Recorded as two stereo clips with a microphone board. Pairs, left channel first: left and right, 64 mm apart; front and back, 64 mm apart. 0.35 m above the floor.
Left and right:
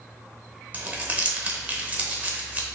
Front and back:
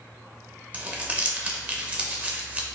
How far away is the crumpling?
About 0.7 m.